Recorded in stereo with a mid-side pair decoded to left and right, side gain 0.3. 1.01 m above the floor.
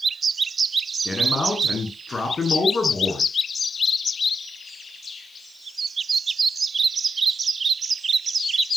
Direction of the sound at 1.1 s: 45° left.